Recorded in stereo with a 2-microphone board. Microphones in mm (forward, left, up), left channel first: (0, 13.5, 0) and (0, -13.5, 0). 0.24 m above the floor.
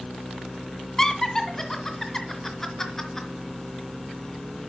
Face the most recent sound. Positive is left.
turn(degrees=15)  # may be behind; listen again after turning